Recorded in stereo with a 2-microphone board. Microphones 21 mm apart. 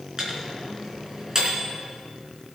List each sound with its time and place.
0.2 s a microwave: 30° right (ahead or behind), 4 m